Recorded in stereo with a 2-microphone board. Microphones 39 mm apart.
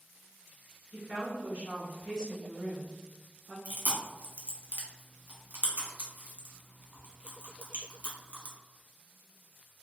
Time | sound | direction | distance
0.9 | a woman speaking | 50° right (ahead or behind) | 1.5 m
3.6 | chewing | 40° right (ahead or behind) | 0.9 m